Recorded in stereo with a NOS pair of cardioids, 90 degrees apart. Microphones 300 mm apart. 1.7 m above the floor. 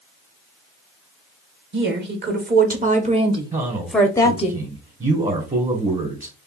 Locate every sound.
1.7 s a woman speaking: 40° right, 1.6 m; by 4.5 s 30° left, 0.7 m
3.5 s a man speaking: 25° right, 1.5 m